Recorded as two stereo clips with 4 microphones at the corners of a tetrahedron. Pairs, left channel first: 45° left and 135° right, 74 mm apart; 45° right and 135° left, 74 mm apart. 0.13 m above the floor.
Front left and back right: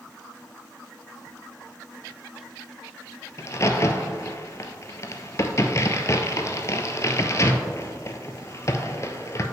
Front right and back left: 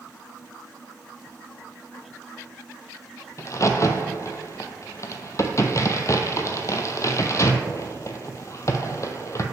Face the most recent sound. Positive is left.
turn(degrees=0)